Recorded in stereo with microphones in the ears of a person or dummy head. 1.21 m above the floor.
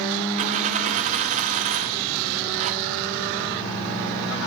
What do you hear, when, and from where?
0.4 s a dropped coin: 35° right (ahead or behind), 0.7 m